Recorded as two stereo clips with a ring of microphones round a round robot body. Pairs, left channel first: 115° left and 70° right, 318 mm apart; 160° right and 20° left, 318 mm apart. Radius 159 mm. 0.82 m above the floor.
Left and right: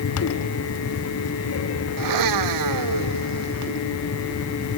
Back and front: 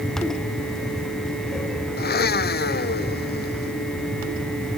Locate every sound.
2.0 s a blender: 95° right